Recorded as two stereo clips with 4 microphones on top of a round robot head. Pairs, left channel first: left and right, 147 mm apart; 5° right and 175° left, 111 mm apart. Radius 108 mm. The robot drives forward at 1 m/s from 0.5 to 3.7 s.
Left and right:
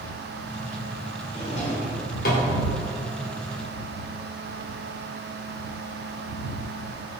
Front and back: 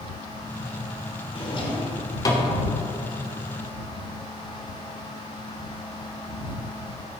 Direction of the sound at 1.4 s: 30° left.